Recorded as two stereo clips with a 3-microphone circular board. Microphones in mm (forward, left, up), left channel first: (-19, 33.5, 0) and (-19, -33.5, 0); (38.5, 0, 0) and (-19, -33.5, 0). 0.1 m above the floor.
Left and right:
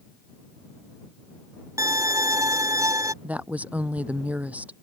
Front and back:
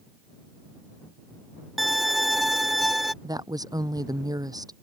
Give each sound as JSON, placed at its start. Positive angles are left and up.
{"t": 1.8, "sound": "a violin", "azimuth_deg": -60}
{"t": 3.2, "sound": "a woman speaking", "azimuth_deg": -155}